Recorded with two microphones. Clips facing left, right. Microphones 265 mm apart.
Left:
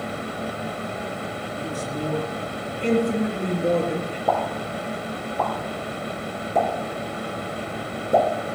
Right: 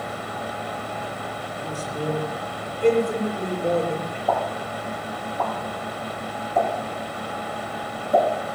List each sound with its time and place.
1.6 s a man speaking: 75° left (ahead or behind), 6 m
4.3 s a pop: 80° left, 6 m